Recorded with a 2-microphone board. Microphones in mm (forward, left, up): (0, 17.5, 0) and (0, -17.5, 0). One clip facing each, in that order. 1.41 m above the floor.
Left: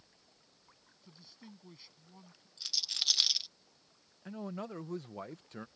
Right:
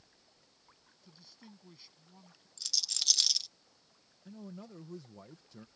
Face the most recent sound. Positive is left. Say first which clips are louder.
# left 7 dB
turn(degrees=55)  # may be behind; listen again after turning